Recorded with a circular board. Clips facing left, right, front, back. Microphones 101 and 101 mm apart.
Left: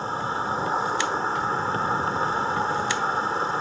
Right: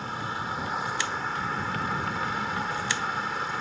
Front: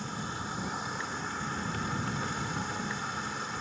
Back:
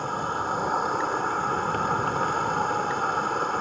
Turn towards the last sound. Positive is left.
turn(degrees=150)